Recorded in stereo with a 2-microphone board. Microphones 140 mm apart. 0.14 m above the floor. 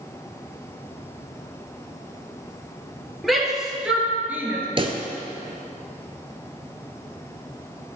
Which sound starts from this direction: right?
A pop, at 4.8 s.